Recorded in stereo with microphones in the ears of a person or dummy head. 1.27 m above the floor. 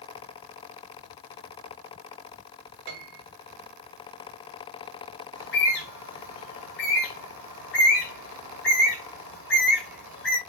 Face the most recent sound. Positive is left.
turn(degrees=65)  # may be behind; listen again after turning